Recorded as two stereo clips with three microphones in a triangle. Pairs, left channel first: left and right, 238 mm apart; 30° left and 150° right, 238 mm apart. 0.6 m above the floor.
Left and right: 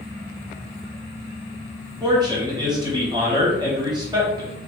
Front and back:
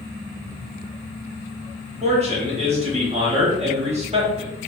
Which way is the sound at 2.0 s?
140° right.